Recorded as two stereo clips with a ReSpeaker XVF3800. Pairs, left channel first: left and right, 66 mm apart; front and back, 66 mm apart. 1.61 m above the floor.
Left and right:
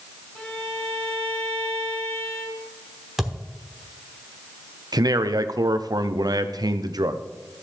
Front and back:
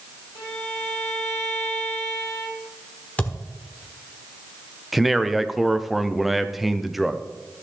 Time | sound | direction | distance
0.3 | a violin | 25° left | 3.5 m
3.2 | a thud | 5° right | 1.3 m
4.9 | a man speaking | 95° right | 0.7 m